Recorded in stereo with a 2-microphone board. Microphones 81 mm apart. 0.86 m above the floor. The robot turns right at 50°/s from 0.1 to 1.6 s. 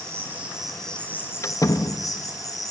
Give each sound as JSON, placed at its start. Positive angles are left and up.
{"t": 0.0, "sound": "an insect", "azimuth_deg": -30, "distance_m": 4.0}
{"t": 1.4, "sound": "a door slam", "side_deg": 35, "distance_m": 0.8}